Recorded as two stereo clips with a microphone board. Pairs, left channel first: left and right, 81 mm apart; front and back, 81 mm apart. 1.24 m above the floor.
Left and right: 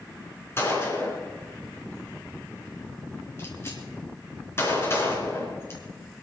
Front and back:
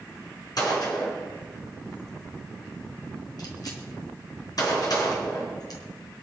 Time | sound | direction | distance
0.6 | a gunshot | 30° left | 4 m